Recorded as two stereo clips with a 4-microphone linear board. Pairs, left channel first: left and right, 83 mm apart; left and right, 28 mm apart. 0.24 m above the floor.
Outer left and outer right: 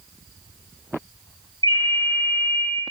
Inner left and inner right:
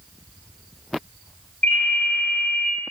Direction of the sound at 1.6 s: 65° left (ahead or behind).